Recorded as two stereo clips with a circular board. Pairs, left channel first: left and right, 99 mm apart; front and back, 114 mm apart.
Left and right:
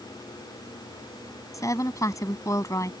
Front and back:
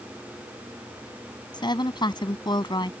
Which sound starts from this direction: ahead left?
A woman speaking, at 1.5 s.